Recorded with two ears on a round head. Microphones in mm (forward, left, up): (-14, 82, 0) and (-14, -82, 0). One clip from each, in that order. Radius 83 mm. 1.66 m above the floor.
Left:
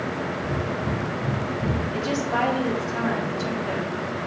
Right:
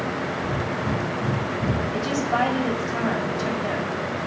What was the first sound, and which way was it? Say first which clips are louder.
Breathing: right 1 dB; 65° right (ahead or behind).